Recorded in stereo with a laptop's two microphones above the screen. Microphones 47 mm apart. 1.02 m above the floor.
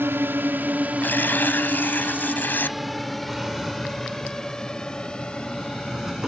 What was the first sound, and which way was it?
A drone, 55° right (ahead or behind).